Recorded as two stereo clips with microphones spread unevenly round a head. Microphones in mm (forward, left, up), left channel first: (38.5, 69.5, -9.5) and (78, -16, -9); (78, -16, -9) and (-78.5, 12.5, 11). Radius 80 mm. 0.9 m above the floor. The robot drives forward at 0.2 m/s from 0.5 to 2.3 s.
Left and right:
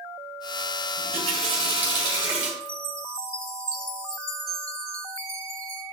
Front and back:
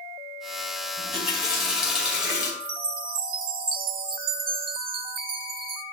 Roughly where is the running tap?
Right.